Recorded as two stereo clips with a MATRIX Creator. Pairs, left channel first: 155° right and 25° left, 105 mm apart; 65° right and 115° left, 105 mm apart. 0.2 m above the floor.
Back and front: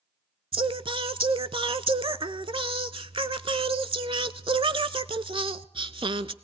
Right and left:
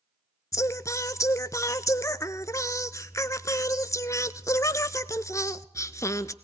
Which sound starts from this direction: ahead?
Singing, at 0.5 s.